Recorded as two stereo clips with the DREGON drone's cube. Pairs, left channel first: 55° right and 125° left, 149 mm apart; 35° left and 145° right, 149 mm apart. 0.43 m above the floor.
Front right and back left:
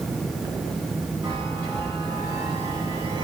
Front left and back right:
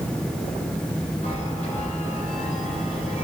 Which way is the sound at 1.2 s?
65° left.